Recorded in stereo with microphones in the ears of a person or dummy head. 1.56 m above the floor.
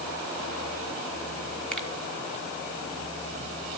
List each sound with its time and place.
1.7 s a finger snap: 5° left (ahead or behind), 1.9 m